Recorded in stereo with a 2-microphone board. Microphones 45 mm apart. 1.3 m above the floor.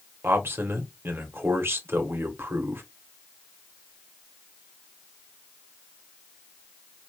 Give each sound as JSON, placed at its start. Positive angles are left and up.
{"t": 0.2, "sound": "a man speaking", "side_deg": -65, "distance_m": 1.1}